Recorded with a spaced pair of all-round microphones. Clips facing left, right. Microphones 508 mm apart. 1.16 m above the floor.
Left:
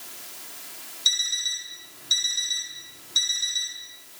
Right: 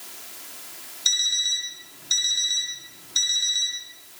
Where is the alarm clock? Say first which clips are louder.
Right 1 dB; 10° right (ahead or behind), 7 m.